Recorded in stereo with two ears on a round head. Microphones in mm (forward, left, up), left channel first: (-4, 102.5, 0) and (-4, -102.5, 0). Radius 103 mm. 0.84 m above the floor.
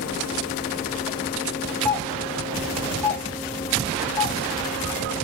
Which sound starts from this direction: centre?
A doorbell, at 1.9 s.